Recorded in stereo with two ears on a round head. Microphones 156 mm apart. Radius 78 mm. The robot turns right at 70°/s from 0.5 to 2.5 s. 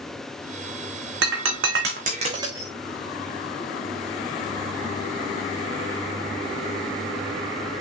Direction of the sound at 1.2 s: 70° right (ahead or behind).